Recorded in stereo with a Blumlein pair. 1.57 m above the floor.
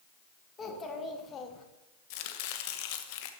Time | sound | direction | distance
0.6 | a child speaking | 20° left | 1.8 m
2.1 | chopping | 45° left | 0.9 m